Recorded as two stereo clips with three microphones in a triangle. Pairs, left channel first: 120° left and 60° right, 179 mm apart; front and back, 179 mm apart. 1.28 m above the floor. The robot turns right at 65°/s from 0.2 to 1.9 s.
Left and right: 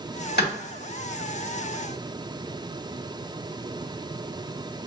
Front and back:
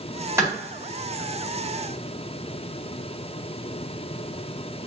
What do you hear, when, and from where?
0.4 s a clap: 105° left, 1.8 m; by 0.5 s 110° left, 1.8 m